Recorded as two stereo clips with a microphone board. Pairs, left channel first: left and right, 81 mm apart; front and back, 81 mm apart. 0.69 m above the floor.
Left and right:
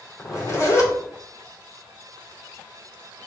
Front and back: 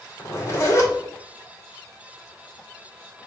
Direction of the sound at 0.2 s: 50° left.